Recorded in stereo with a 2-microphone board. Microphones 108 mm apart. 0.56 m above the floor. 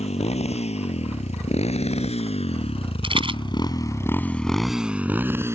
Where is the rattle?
55° right (ahead or behind).